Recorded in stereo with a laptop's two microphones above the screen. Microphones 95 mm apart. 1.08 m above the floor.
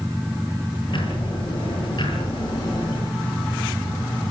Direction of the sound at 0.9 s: 55° left (ahead or behind).